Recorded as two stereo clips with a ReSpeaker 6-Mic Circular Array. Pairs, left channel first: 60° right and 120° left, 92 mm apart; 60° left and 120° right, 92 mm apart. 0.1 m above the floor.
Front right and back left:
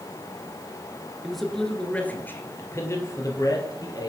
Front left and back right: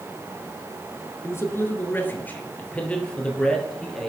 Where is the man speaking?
35° left, 1.3 m; by 4.1 s 25° right, 2 m.